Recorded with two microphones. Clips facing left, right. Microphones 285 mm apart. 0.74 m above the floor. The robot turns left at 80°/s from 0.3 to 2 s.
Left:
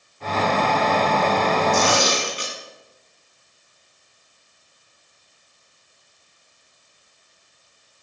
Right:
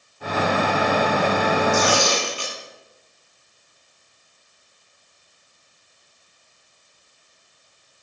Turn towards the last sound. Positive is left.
turn(degrees=20)  # may be behind; listen again after turning